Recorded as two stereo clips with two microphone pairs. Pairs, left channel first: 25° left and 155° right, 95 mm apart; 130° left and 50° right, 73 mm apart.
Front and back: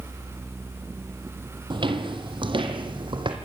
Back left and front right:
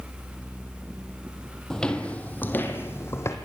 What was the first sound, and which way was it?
Footsteps, 150° right.